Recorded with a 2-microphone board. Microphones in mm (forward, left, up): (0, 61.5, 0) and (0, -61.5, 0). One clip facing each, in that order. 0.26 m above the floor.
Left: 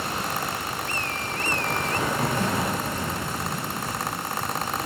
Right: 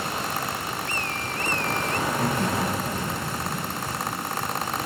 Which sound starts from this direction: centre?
Laughter, at 2.0 s.